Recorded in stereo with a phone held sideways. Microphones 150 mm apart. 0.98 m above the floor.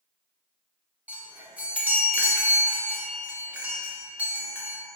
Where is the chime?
10° right (ahead or behind), 0.5 m.